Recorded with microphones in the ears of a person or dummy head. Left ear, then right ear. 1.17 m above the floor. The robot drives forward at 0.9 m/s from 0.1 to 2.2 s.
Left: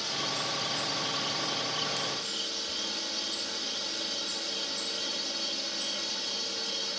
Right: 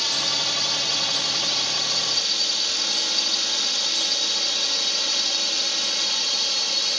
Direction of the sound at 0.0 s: 45° right (ahead or behind).